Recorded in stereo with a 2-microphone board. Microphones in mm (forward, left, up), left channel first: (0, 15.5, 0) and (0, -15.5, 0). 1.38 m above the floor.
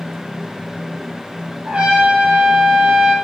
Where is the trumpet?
45° right (ahead or behind), 1.4 m.